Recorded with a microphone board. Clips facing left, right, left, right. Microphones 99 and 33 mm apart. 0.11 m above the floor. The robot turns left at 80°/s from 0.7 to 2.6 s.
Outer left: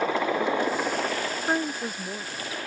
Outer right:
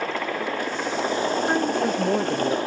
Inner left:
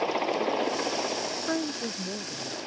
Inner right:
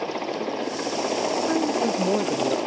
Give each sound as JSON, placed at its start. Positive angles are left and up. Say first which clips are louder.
{"t": 0.0, "sound": "a helicopter", "louder": "outer left 2 dB, inner left 1 dB", "side_deg": 10}
{"t": 1.5, "sound": "a woman speaking", "louder": "outer right 6 dB, inner right 8 dB", "azimuth_deg": 5}